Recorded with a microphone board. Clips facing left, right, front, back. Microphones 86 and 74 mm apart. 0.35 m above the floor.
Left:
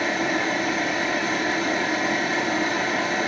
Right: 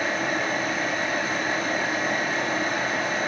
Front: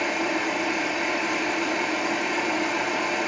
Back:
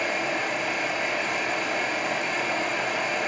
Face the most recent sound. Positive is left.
turn(degrees=80)